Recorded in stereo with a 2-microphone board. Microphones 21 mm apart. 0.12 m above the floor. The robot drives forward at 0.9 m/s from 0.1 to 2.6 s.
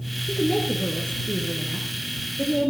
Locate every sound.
0.3 s a woman speaking: 40° left (ahead or behind), 2 m